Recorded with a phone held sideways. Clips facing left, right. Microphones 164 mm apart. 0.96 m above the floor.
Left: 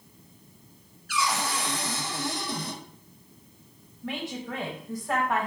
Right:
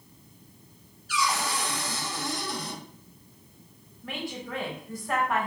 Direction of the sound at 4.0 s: 20° left (ahead or behind).